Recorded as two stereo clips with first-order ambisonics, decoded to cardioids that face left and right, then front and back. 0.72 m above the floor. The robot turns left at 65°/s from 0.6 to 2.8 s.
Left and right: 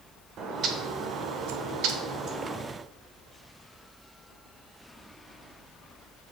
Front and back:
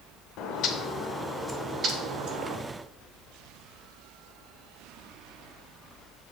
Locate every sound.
0.4 s a bird: 40° right, 1.1 m; by 2.6 s 165° right, 1.1 m